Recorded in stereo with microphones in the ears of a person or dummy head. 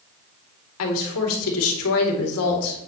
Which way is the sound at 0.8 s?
80° left.